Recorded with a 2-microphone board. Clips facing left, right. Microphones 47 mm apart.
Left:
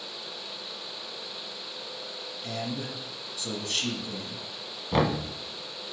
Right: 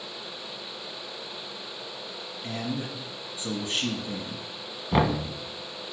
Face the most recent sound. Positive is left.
turn(degrees=-10)  # may be behind; listen again after turning